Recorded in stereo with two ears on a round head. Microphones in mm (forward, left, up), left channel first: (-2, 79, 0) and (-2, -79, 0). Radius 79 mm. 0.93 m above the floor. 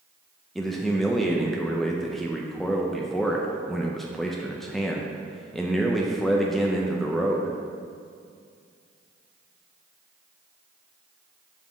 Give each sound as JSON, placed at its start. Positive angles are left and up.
{"t": 0.6, "sound": "a man speaking", "side_deg": 0, "distance_m": 0.5}